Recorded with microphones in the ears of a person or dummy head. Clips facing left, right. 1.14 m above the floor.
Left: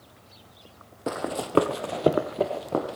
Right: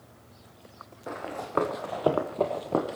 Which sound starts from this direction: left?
Running footsteps, at 1.1 s.